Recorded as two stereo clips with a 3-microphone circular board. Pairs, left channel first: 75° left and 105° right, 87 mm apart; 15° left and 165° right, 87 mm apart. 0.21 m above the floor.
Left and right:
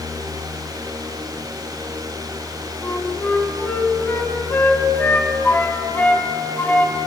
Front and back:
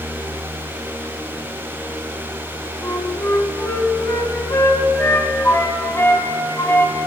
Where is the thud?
No thud in this recording.